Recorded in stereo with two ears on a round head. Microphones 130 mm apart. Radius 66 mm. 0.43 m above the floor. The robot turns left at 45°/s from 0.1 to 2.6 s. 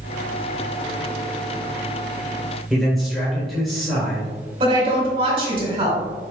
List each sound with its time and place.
2.7 s a man speaking: centre (ahead or behind), 1.5 m
4.6 s a woman speaking: 35° right (ahead or behind), 1.8 m